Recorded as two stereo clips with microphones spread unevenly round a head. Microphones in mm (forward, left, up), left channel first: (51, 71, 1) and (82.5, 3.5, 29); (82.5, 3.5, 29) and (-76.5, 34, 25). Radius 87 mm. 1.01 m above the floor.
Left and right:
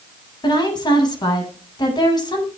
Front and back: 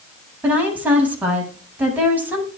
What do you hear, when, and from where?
0.4 s a woman speaking: 90° left, 8.5 m